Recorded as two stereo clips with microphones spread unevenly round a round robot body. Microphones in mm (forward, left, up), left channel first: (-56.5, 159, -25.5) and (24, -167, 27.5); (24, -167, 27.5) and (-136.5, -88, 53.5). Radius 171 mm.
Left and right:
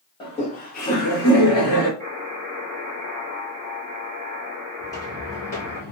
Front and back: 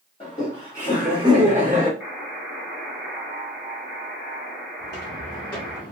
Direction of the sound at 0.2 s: 35° left.